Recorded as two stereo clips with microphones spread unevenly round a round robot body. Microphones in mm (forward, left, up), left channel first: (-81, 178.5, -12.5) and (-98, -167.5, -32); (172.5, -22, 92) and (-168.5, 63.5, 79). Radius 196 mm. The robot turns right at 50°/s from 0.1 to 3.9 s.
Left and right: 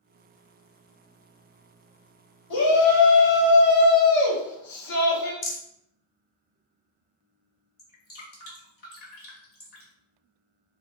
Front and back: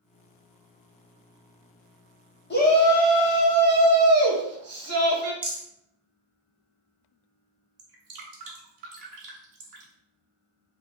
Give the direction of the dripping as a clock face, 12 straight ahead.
7 o'clock.